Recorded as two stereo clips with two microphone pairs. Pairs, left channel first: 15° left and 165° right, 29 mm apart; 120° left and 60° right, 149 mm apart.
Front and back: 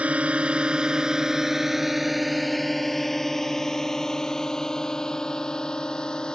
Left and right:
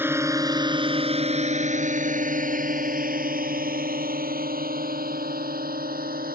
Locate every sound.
0.0 s a drone: 135° right; by 6.3 s 50° right